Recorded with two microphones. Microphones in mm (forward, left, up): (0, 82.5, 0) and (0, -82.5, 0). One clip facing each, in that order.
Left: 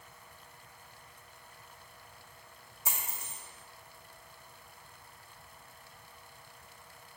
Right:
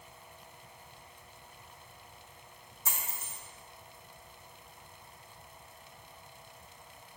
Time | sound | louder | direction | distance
2.9 | a dropped coin | even | 10° left (ahead or behind) | 1.9 m